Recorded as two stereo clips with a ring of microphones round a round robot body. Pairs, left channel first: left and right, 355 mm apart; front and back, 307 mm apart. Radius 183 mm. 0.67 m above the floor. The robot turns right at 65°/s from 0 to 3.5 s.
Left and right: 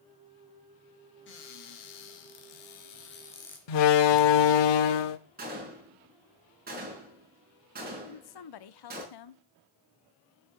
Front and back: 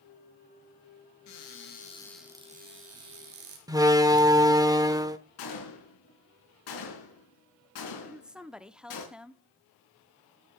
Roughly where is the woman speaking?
Left.